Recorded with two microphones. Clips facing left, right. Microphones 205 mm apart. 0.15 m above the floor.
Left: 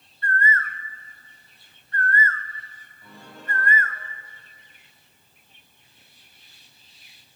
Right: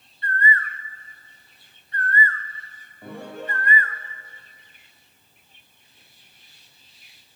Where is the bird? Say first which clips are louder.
Even; 50° left (ahead or behind), 1.5 m.